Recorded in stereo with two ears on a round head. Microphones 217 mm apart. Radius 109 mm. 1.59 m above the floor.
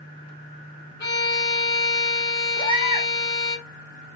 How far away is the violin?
About 1.9 m.